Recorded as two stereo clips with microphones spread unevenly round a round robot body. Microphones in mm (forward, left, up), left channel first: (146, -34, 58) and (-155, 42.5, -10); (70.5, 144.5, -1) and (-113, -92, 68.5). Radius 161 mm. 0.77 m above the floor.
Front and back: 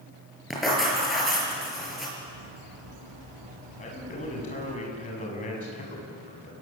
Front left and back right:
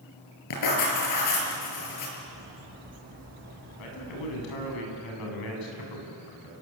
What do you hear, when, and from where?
0.5 s writing: 75° left, 6.5 m
2.2 s a bird: 175° left, 6 m
3.8 s a man speaking: 55° left, 7.5 m